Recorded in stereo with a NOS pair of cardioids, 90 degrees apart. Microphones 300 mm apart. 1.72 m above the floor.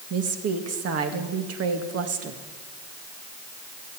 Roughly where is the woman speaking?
Ahead right.